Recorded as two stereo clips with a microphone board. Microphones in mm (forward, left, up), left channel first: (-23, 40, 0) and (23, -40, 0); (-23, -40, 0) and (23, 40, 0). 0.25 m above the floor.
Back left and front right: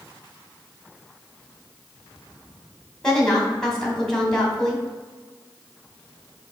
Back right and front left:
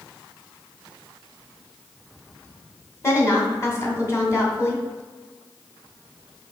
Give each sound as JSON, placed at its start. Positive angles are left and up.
{"t": 3.0, "sound": "a woman speaking", "azimuth_deg": -155, "distance_m": 2.0}